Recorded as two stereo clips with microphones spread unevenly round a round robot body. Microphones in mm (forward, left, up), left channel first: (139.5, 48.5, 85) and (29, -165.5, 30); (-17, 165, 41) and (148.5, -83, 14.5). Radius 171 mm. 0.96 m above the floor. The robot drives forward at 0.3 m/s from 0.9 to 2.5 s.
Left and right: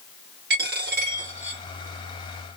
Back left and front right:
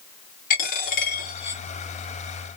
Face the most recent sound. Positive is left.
turn(degrees=180)